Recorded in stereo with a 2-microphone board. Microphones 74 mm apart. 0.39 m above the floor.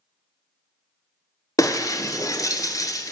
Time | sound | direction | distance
1.6 | breaking glass | 45° left (ahead or behind) | 0.7 m